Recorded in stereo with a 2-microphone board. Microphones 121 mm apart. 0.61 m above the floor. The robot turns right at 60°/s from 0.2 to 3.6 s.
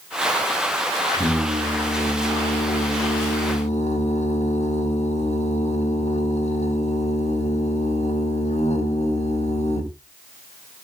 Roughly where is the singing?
Ahead right.